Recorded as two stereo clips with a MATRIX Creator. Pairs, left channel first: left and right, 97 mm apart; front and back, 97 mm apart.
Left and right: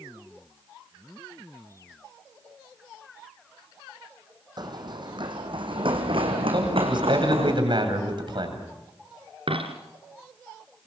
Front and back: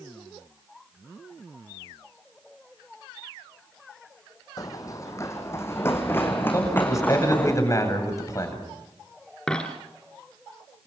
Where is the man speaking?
55° right, 7.5 m.